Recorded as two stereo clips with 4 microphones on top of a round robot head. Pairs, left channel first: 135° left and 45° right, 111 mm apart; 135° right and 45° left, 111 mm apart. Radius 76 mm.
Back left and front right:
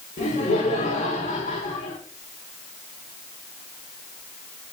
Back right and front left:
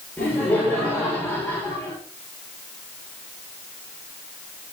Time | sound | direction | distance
0.2 | laughter | 140° left | 5.5 m